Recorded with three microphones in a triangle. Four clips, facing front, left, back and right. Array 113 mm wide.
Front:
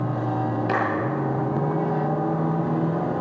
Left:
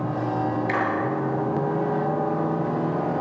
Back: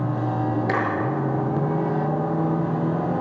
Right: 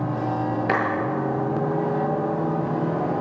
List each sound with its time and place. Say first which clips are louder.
0.7 s a clap: right 4 dB, front 2 dB; 105° right, 7 m